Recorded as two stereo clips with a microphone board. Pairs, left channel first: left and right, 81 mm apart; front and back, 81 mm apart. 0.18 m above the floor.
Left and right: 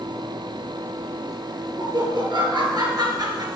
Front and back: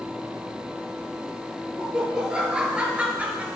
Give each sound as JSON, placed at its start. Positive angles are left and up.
{"t": 1.8, "sound": "laughter", "azimuth_deg": -100, "distance_m": 4.0}